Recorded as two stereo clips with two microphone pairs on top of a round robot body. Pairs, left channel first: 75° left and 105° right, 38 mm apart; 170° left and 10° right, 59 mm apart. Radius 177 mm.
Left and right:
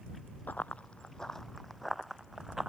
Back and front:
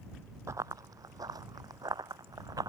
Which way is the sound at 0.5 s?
30° left.